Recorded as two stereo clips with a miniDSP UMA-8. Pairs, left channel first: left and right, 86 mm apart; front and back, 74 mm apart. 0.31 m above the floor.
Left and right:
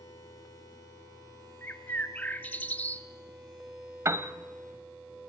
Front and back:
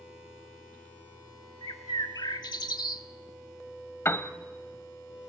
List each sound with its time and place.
1.6 s a bird: 20° left, 0.7 m
4.0 s a piano: 50° right, 0.9 m